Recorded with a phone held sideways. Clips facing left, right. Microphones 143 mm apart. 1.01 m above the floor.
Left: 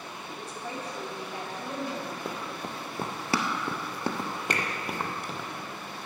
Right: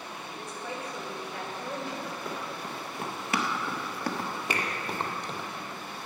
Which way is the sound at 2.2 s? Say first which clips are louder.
Left 1 dB; 35° left (ahead or behind).